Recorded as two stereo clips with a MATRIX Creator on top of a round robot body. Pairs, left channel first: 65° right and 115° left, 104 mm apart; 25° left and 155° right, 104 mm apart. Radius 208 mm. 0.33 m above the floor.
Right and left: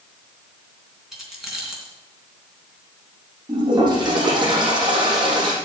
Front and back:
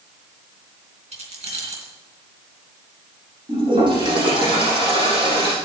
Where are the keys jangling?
160° right, 3.5 m.